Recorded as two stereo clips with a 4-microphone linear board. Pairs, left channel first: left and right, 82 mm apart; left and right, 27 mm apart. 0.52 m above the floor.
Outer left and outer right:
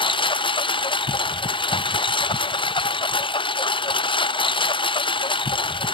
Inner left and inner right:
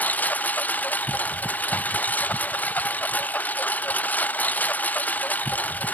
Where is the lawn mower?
80° left.